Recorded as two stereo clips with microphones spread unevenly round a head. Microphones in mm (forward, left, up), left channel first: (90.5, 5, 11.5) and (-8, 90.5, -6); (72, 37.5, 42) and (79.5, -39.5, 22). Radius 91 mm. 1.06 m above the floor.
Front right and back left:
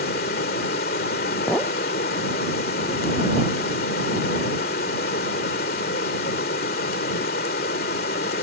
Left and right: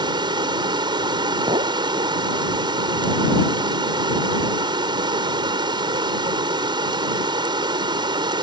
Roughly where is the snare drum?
I don't hear a snare drum.